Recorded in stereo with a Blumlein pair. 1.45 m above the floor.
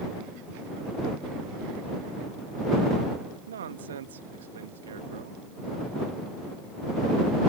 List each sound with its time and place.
3.5 s a man speaking: 65° right